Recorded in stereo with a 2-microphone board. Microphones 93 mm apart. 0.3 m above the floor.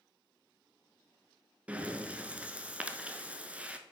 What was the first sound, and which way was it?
Breathing, 15° right (ahead or behind).